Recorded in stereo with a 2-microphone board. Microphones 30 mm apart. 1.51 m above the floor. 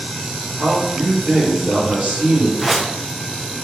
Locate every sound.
0.6 s a man speaking: 65° right (ahead or behind), 2 m
2.6 s a whoosh: 5° right (ahead or behind), 0.5 m